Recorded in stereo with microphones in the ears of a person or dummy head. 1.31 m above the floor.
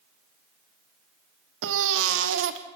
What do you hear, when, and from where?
1.6 s a baby crying: 75° right (ahead or behind), 2.0 m